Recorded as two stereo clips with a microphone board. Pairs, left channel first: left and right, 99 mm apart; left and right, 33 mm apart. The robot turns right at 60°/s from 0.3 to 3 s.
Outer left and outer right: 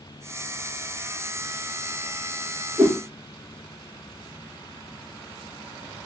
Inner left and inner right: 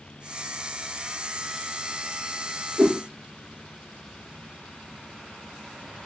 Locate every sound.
2.8 s a whoosh: 35° right (ahead or behind), 0.8 m